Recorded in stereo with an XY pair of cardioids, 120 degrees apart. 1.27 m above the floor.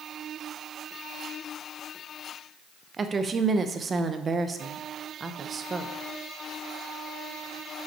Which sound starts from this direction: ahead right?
A woman speaking, at 3.0 s.